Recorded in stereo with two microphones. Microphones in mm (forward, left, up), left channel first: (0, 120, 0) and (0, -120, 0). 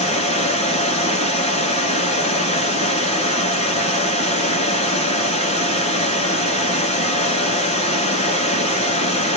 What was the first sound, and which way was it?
Running water, 30° left (ahead or behind).